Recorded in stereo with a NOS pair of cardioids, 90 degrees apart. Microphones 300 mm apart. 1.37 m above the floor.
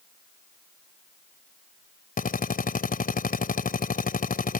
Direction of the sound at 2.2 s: 30° left.